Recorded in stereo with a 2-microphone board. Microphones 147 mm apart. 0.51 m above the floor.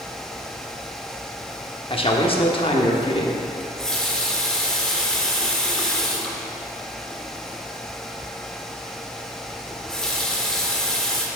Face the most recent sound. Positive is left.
turn(degrees=5)  # may be behind; listen again after turning